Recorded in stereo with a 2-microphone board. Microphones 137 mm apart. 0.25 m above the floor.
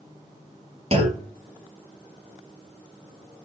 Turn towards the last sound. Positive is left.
turn(degrees=-50)  # may be behind; listen again after turning